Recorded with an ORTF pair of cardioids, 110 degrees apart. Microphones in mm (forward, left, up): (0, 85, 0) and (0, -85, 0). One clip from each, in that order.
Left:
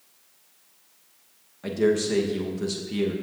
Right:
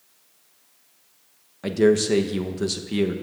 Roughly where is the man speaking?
Ahead right.